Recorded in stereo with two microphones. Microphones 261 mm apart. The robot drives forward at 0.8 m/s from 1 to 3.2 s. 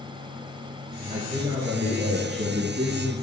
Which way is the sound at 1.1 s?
20° right (ahead or behind).